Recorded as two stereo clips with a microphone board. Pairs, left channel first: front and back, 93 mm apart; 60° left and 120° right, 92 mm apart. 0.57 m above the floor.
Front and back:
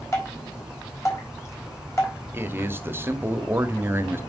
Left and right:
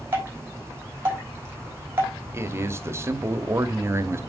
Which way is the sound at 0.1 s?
55° right.